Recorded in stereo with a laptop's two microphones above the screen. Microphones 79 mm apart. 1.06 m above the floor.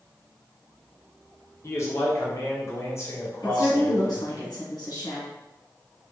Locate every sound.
1.6 s a man speaking: 40° left (ahead or behind), 0.9 m
3.4 s a woman speaking: 65° left (ahead or behind), 1.8 m